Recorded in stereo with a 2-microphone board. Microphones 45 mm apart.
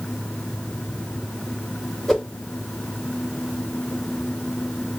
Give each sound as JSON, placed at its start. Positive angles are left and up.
{"t": 2.1, "sound": "a whoosh", "side_deg": 10, "distance_m": 1.7}